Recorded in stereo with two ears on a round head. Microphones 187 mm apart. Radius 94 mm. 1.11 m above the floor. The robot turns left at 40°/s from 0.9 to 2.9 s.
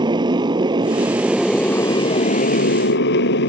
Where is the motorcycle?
155° right; by 3.5 s 125° left.